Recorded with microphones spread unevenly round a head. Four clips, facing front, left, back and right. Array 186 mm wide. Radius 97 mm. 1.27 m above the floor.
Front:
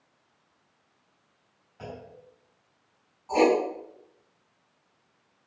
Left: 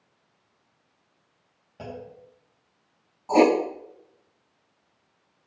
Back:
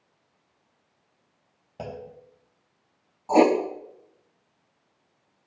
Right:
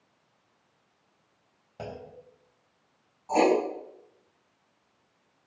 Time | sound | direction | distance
1.8 | a clunk | 165° right | 3.5 m
3.3 | writing | 150° left | 2.5 m